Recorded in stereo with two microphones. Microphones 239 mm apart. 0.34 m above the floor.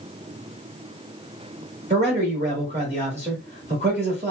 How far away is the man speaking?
About 1.2 m.